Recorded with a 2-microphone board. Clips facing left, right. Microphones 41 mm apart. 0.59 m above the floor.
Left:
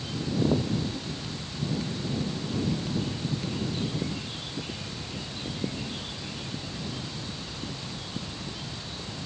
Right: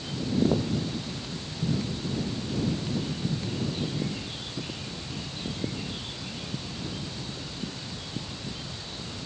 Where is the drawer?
No drawer in this recording.